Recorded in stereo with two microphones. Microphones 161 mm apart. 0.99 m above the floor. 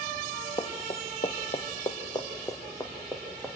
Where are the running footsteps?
35° left (ahead or behind), 1.7 m; by 3.6 s 10° left (ahead or behind), 4 m.